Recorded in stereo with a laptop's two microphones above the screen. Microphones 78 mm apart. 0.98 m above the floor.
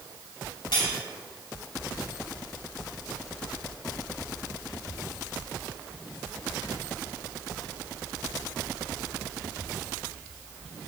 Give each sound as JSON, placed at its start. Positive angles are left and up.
{"t": 0.7, "sound": "cutlery clinking", "side_deg": 80, "distance_m": 3.0}